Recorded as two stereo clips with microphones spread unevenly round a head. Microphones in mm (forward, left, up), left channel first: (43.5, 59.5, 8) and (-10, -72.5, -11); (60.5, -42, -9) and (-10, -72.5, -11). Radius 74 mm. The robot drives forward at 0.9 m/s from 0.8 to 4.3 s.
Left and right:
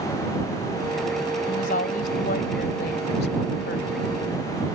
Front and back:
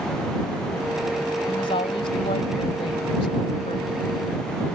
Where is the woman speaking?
35° left; by 3.9 s 60° left.